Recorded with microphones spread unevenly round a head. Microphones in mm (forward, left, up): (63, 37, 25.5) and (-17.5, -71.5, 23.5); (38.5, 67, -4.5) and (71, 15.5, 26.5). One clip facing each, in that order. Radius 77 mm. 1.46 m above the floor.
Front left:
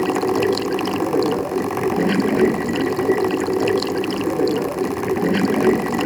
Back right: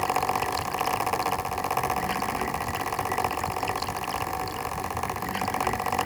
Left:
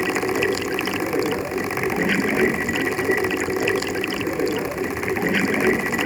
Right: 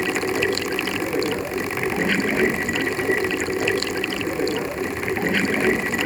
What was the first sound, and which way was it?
Running water, 35° left.